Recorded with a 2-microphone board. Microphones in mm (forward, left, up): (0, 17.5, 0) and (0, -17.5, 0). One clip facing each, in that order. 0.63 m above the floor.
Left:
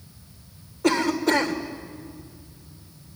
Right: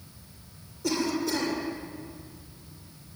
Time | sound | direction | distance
0.8 | a cough | 65° left (ahead or behind) | 2.5 m